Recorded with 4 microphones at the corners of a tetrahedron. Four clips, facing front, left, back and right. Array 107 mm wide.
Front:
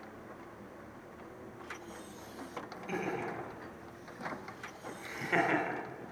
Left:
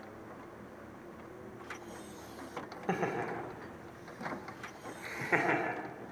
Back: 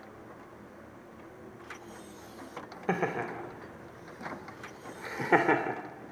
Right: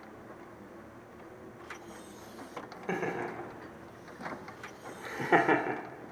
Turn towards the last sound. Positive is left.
turn(degrees=-135)